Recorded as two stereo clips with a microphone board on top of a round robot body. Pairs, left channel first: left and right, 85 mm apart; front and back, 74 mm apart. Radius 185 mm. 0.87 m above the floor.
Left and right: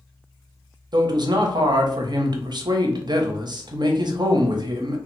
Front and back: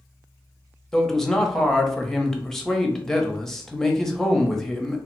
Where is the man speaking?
85° right, 0.9 m.